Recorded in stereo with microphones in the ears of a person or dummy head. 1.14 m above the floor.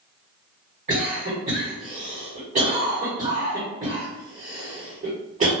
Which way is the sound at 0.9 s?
35° right (ahead or behind).